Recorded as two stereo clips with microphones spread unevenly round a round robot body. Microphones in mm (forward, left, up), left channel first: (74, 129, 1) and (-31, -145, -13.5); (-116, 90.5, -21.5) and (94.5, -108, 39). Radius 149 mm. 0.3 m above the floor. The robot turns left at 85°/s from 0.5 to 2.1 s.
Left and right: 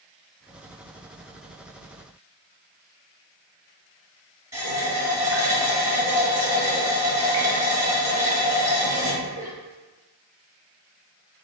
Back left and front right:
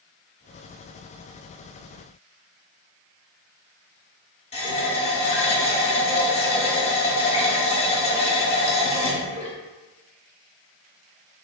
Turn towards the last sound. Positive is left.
turn(degrees=175)